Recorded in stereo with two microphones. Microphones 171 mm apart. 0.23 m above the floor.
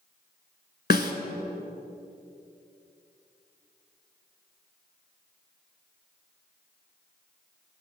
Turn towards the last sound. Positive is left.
turn(degrees=65)  # may be behind; listen again after turning